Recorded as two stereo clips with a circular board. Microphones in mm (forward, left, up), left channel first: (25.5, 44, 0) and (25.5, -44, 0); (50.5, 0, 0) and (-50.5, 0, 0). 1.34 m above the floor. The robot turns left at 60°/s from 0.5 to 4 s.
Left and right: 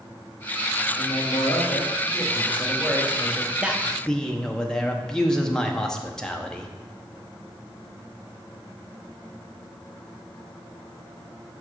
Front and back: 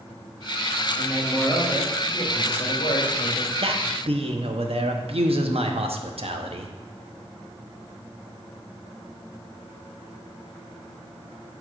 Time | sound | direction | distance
1.0 | a man speaking | 110° left | 2.0 m
3.6 | a man speaking | 165° right | 0.9 m